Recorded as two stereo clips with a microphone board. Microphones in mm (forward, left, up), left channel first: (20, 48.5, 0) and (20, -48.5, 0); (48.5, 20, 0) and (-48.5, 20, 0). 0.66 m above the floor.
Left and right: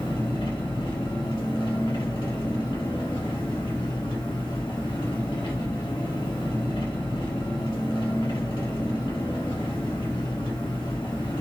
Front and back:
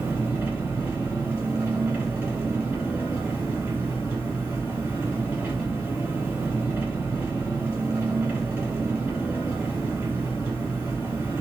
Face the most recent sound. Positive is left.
turn(degrees=110)